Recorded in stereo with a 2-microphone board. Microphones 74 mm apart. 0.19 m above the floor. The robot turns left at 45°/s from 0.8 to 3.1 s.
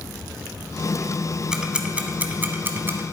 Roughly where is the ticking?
Centre.